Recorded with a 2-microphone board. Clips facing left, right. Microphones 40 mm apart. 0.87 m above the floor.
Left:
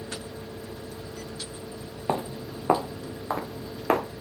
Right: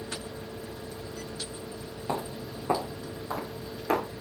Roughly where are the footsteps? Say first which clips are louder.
Left 4 dB; left.